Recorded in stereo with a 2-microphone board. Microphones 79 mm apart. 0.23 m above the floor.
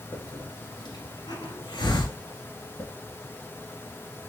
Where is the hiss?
70° left (ahead or behind), 1.9 m.